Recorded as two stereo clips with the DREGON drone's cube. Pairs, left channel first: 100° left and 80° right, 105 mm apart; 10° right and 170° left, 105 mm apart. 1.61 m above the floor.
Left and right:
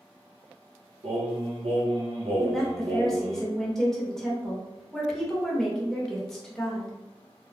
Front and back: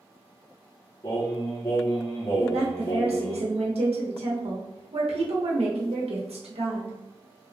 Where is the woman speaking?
175° right, 1.2 m.